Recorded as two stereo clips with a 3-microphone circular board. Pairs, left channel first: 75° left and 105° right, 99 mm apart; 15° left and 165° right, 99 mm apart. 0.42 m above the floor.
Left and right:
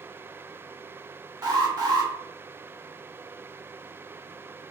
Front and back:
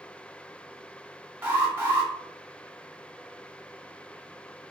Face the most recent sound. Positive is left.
turn(degrees=-105)